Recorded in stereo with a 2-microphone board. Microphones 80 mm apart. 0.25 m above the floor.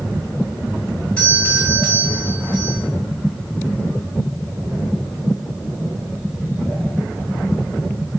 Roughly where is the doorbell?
Centre.